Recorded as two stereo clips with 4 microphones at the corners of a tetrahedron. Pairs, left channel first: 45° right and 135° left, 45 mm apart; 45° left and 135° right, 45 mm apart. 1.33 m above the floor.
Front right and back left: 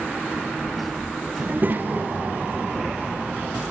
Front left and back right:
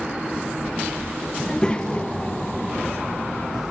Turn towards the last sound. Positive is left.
turn(degrees=85)